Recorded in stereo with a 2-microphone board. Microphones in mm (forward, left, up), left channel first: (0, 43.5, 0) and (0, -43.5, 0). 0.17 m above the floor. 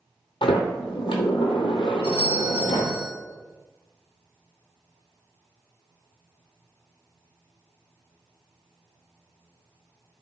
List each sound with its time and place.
0.4 s a sliding door: 85° left, 0.9 m
2.0 s a doorbell: 15° right (ahead or behind), 1.6 m